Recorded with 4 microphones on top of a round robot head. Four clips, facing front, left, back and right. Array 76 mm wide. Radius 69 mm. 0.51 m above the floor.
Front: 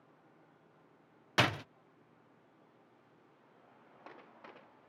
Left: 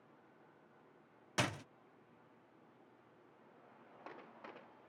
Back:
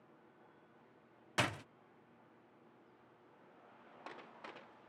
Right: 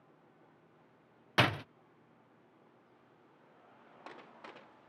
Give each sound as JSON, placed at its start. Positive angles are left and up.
{"t": 1.4, "sound": "a door slam", "azimuth_deg": -55}